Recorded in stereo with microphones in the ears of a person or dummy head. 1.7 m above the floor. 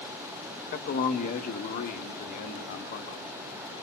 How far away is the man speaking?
About 1.9 m.